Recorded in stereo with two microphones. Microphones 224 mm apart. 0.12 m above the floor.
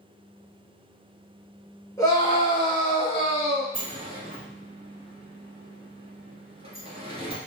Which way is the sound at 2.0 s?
15° left (ahead or behind).